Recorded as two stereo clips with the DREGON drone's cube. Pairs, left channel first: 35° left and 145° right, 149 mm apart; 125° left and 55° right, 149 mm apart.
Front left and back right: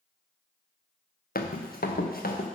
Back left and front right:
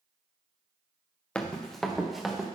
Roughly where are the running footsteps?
Ahead left.